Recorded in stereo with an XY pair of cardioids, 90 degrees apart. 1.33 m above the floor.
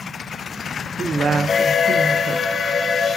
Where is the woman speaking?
50° right, 0.8 m.